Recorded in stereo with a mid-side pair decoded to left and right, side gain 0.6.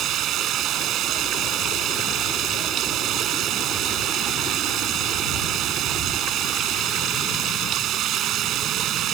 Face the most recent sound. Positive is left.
turn(degrees=-60)